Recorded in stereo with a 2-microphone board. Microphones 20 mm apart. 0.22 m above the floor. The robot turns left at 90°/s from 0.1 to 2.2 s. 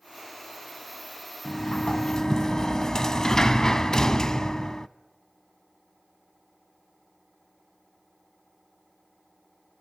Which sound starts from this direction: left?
A sliding door, at 1.4 s.